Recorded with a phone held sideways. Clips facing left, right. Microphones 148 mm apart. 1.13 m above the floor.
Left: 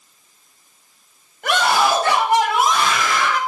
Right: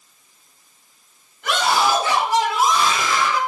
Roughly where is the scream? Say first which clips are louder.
Left 2 dB; left.